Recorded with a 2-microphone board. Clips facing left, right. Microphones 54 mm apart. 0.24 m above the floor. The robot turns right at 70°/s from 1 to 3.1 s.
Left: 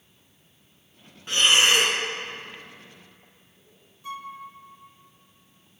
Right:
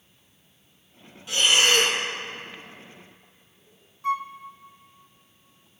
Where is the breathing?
130° left, 1.2 m; by 2.0 s straight behind, 1.2 m.